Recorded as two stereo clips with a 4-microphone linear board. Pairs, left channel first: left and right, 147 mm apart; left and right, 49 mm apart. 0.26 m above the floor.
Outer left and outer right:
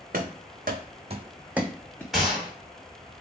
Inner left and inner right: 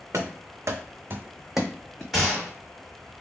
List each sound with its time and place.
0.1 s running footsteps: 70° right (ahead or behind), 0.9 m; by 2.0 s 10° left (ahead or behind), 0.7 m
2.1 s a gunshot: centre (ahead or behind), 1.4 m